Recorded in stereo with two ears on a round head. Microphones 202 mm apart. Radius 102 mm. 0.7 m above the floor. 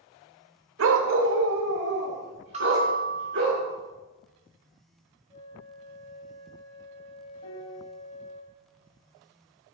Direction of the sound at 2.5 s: 30° right (ahead or behind).